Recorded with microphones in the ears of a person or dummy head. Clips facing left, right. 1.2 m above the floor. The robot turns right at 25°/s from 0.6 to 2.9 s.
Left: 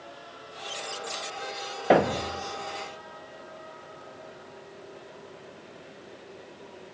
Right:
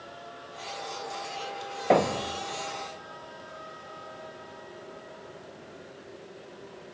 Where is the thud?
10° left (ahead or behind), 0.5 m; by 2.5 s 15° left (ahead or behind), 0.5 m.